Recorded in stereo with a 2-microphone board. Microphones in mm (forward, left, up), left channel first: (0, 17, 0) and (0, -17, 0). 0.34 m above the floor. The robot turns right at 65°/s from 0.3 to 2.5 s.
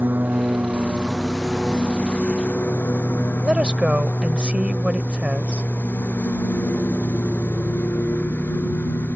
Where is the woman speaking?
30° right (ahead or behind).